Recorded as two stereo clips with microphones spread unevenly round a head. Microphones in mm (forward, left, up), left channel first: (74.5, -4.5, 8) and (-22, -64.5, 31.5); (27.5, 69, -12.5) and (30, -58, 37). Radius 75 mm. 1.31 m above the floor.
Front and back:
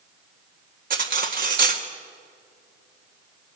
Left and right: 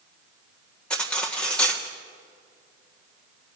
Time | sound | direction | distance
0.9 | cutlery clinking | straight behind | 1.6 m